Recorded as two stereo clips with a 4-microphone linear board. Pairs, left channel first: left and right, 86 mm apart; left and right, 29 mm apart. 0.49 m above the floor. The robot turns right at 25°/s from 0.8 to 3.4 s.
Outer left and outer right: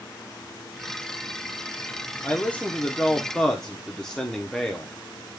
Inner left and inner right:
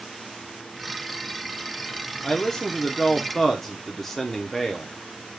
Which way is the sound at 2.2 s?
20° left (ahead or behind).